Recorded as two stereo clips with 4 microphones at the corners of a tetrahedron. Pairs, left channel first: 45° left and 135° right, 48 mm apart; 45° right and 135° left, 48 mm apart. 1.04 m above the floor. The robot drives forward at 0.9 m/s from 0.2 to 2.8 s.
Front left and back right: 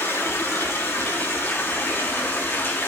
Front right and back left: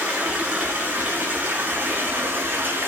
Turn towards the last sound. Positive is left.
turn(degrees=85)